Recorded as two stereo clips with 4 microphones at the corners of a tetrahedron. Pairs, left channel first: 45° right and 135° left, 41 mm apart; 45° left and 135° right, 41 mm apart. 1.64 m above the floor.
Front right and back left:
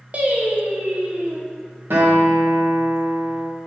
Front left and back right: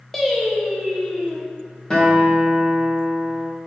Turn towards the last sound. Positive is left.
turn(degrees=115)